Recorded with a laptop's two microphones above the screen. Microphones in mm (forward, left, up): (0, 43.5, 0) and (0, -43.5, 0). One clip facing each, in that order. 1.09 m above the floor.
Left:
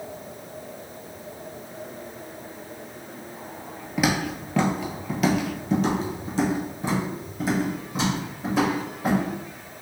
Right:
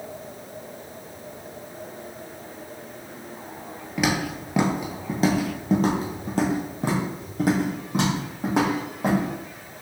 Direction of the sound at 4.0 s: 5° left (ahead or behind).